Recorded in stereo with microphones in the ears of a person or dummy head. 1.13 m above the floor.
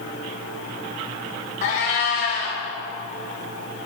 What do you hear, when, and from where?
1.6 s a cat meowing: 45° left (ahead or behind), 1.0 m